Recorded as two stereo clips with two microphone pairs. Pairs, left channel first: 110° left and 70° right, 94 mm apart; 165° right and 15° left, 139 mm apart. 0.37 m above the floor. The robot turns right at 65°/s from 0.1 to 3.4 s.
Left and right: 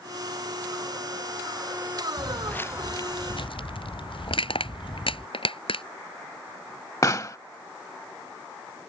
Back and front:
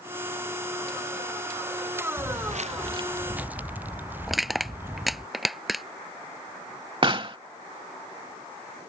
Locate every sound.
2.2 s footsteps: 20° left; by 5.3 s 85° left
4.3 s crushing: 105° left
7.0 s a pop: 60° left